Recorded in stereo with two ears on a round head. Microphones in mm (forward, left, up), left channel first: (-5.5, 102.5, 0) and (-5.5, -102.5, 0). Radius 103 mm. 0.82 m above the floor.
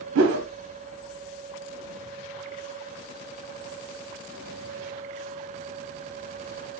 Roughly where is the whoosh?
Right.